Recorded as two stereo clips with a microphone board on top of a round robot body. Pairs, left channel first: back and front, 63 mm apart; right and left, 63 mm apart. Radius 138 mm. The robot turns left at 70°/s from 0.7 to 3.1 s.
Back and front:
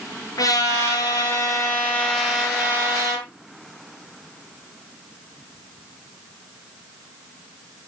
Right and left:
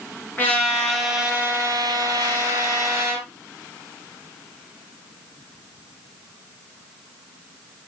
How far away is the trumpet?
About 7 m.